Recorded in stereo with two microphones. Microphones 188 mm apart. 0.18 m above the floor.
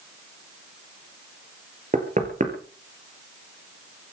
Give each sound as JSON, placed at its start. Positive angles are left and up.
{"t": 1.9, "sound": "knocking", "side_deg": -40, "distance_m": 3.5}